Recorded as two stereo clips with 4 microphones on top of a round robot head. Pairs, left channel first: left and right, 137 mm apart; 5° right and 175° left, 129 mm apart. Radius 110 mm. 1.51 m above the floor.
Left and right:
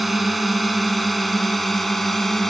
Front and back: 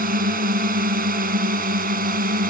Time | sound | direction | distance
0.0 | a drone | straight behind | ?